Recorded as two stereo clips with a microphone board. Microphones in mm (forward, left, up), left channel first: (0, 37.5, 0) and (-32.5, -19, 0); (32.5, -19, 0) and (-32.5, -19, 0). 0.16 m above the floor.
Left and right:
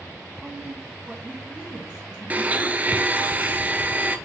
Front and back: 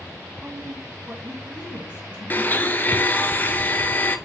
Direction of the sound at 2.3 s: 60° right.